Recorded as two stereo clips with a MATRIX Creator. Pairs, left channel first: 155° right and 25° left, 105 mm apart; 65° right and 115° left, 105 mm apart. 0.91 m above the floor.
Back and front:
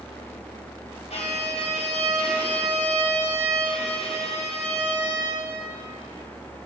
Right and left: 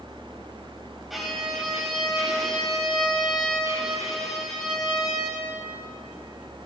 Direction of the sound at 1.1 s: 160° right.